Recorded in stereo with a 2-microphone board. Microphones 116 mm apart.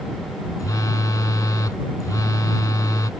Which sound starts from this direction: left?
A phone buzzing, at 0.6 s.